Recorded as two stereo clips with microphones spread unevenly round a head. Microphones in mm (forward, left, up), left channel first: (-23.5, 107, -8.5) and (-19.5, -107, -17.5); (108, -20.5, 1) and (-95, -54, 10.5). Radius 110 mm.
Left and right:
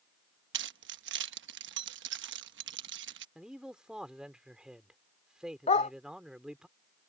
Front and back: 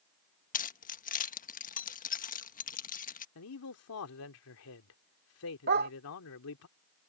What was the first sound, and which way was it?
Keys jangling, 45° right.